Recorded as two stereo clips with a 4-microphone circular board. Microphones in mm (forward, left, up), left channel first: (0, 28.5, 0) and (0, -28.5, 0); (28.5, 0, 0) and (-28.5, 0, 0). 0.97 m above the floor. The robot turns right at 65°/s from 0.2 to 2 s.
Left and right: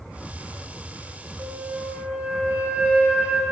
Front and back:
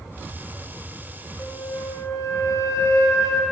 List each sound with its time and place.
1.4 s a flute: 60° right, 4 m; by 3.4 s 20° right, 4 m